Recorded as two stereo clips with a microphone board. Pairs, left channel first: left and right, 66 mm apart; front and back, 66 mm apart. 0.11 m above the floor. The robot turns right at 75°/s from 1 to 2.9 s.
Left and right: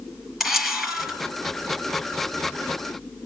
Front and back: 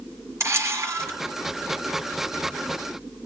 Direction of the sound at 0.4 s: 170° right.